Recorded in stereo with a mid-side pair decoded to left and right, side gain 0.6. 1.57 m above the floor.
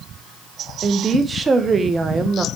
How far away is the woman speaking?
About 1.5 m.